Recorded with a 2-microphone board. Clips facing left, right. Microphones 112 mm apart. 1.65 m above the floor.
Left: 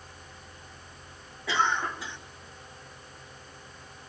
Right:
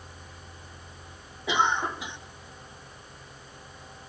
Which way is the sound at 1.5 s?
15° right (ahead or behind).